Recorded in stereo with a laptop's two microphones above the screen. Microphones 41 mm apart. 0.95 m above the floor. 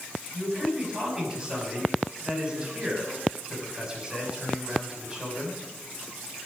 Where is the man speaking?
20° right (ahead or behind), 6 m.